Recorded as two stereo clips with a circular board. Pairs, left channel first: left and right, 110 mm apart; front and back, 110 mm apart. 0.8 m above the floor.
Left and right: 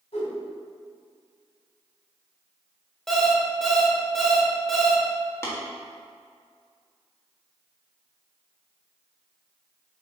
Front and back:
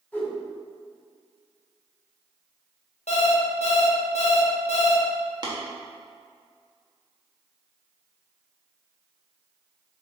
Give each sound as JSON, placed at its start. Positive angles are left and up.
{"t": 0.1, "sound": "a whoosh", "azimuth_deg": 75, "distance_m": 2.5}
{"t": 3.1, "sound": "an alarm clock", "azimuth_deg": 0, "distance_m": 1.1}
{"t": 5.4, "sound": "tapping", "azimuth_deg": 145, "distance_m": 1.6}